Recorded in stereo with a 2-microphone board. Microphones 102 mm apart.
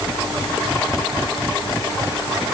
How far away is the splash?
No splash in this recording.